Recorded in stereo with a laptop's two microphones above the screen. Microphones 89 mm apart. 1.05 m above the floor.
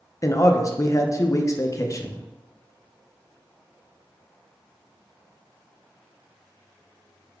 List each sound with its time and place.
0.2 s a man speaking: 35° left (ahead or behind), 0.5 m